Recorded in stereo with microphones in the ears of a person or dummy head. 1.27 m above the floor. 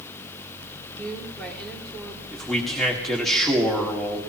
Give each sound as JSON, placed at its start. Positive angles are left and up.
{"t": 1.0, "sound": "a woman speaking", "side_deg": 10, "distance_m": 2.5}
{"t": 2.3, "sound": "a man speaking", "side_deg": -5, "distance_m": 1.8}